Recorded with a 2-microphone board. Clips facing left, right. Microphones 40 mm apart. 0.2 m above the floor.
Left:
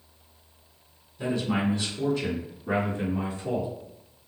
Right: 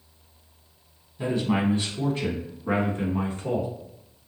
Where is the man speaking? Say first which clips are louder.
Right 2 dB; 25° right (ahead or behind), 1.8 m; by 3.7 s 50° right (ahead or behind), 2.5 m.